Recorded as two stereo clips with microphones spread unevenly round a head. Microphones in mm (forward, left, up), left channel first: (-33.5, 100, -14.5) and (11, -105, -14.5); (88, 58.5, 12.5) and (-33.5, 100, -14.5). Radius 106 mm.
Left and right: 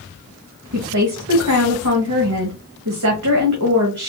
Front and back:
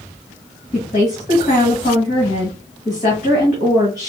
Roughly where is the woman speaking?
Right.